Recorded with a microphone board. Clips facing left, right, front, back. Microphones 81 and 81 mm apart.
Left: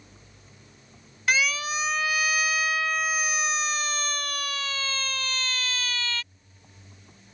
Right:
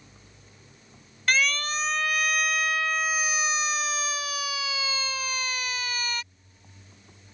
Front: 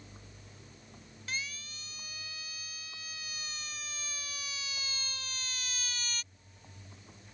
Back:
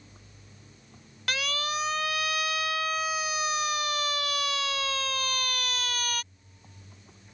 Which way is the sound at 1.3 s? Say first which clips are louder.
Even, back 12 dB; 175° left.